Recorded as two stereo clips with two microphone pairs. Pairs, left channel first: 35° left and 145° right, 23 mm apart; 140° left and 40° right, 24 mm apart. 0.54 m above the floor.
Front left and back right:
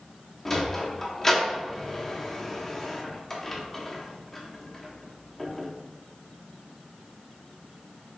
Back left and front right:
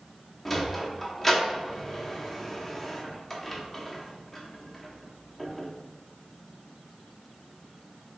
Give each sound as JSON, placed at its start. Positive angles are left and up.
{"t": 0.5, "sound": "a sliding door", "azimuth_deg": 80, "distance_m": 0.7}